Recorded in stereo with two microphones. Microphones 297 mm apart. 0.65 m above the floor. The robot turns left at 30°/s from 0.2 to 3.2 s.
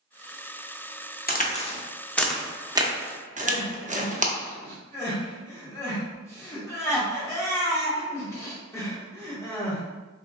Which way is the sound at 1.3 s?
30° left (ahead or behind).